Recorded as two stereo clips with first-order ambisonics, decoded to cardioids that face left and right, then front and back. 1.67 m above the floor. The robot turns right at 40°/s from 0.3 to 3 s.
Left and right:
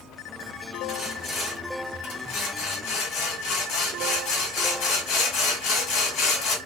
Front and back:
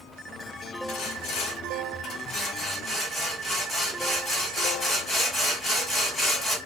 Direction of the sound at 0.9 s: 15° left.